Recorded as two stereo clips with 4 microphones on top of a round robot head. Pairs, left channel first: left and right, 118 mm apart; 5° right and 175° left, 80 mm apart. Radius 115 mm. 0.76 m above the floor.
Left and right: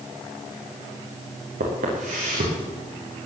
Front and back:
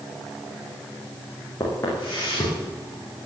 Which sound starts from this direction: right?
Footsteps, at 1.6 s.